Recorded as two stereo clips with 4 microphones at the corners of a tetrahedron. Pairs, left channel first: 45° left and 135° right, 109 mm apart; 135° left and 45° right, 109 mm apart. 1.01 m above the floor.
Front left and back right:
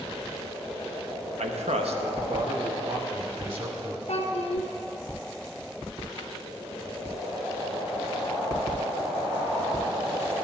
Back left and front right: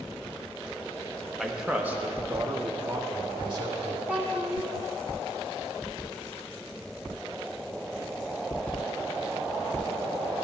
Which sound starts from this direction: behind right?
A man speaking, at 1.4 s.